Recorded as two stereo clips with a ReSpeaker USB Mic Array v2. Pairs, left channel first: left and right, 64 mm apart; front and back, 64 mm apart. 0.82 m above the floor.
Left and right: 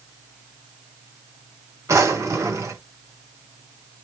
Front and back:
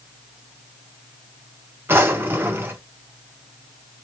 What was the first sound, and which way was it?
A drawer, 130° right.